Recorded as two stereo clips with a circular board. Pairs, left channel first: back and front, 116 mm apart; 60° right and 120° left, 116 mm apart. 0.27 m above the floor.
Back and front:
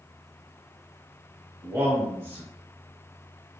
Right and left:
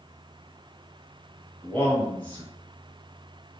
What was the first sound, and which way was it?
A man speaking, 10° right.